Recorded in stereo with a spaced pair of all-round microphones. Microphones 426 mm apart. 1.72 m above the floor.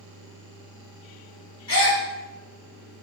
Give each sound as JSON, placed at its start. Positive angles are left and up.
{"t": 1.7, "sound": "a gasp", "side_deg": 50, "distance_m": 1.1}